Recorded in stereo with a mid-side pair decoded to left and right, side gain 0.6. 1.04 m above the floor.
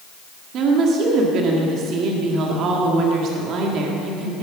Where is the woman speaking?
55° right, 1.7 m.